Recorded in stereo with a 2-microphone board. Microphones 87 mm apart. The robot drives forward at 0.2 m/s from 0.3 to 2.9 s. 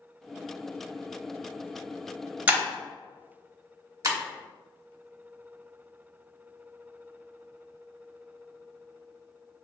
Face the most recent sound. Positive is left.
turn(degrees=-40)  # may be behind; listen again after turning